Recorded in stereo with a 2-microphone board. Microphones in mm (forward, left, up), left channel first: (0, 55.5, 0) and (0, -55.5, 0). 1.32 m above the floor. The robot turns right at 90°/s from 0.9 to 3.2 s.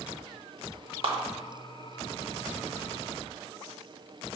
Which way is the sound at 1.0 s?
55° right (ahead or behind).